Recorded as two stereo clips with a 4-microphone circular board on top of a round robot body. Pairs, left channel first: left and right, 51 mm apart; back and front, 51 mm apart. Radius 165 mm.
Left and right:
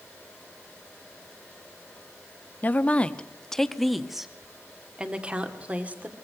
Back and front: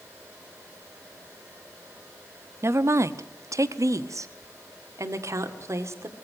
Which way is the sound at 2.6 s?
35° left.